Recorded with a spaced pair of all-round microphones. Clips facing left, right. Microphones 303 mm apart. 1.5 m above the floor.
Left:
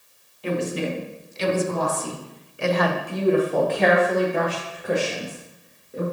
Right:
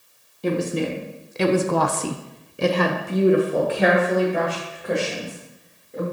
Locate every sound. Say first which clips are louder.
0.4 s a woman speaking: right 2 dB; 50° right (ahead or behind), 1.2 m; by 6.0 s 10° left (ahead or behind), 2 m